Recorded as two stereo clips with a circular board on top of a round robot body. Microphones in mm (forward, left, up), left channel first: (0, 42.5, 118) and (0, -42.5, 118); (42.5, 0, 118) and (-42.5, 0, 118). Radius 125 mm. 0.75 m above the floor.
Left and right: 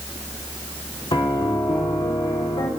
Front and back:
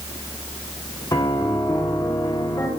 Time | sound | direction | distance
1.1 | a piano | 50° left | 2 m